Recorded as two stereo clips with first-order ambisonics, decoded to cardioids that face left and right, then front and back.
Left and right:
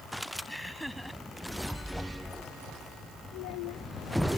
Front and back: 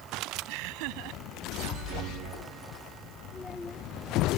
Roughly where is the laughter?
Behind.